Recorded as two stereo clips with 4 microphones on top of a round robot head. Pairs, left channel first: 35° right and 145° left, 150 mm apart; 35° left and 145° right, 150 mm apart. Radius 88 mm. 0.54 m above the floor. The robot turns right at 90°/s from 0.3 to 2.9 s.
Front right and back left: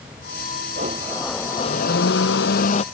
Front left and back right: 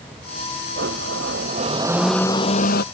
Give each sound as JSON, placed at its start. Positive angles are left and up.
{"t": 0.8, "sound": "a blender", "azimuth_deg": -170}